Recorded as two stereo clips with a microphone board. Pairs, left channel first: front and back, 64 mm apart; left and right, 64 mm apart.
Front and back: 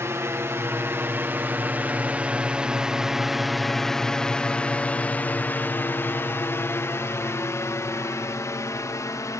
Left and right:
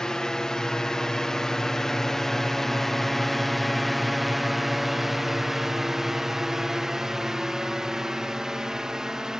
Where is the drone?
165° left; by 9.4 s 10° right.